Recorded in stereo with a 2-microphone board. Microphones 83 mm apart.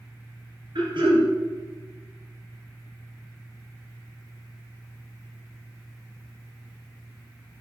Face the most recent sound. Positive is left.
turn(degrees=-70)  # may be behind; listen again after turning